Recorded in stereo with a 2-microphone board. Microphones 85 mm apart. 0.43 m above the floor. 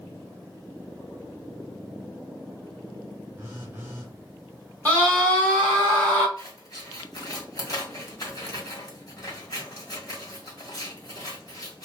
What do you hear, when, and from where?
3.4 s a phone buzzing: 25° right (ahead or behind), 1.7 m
4.8 s a scream: 20° left (ahead or behind), 1.3 m
6.4 s scissors: 45° left (ahead or behind), 1.3 m